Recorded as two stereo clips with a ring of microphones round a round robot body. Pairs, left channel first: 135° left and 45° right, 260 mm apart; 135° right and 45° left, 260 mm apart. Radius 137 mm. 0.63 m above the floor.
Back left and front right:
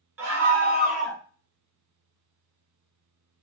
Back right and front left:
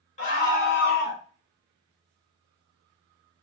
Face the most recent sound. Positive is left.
turn(degrees=-115)